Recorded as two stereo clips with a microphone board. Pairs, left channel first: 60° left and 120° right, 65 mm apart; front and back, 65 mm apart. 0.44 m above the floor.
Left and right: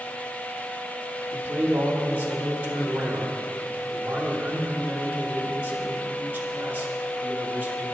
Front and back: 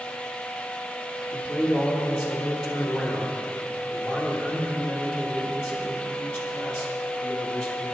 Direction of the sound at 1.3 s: 85° right.